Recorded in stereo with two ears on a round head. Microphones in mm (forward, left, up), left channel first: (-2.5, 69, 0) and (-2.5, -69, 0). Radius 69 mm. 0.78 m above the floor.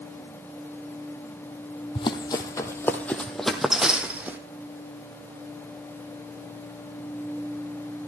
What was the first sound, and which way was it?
Running footsteps, 30° left (ahead or behind).